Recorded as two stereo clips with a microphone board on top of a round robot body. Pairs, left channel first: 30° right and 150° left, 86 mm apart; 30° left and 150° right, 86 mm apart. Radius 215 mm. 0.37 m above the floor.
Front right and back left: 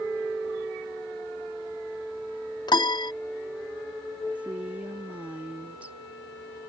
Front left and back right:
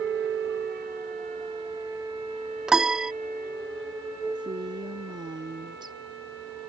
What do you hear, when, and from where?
2.7 s a piano: 65° right
4.3 s a woman speaking: 135° right